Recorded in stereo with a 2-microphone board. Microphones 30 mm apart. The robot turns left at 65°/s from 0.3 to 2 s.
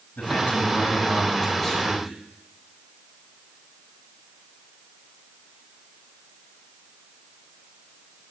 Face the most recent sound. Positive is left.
turn(degrees=-10)